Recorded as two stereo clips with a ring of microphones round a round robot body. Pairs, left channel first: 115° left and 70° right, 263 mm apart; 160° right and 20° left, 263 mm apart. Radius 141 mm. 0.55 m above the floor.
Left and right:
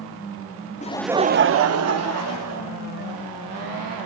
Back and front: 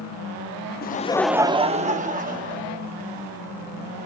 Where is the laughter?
165° left, 0.8 m; by 3.1 s 35° right, 3 m.